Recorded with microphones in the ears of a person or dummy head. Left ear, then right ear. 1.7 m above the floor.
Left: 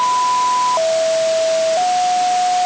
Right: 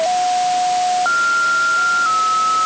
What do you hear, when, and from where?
Only background noise.